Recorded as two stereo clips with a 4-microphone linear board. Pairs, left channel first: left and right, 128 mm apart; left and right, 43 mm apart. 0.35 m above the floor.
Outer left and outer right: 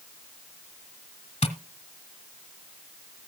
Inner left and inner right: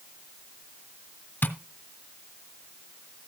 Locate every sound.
1.4 s tapping: 55° left (ahead or behind), 1.2 m